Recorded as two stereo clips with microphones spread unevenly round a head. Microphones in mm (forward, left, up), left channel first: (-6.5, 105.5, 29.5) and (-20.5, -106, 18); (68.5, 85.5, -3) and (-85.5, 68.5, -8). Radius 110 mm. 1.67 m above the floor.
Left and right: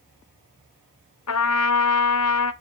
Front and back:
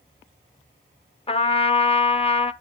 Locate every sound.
1.3 s a trumpet: 60° left, 1.0 m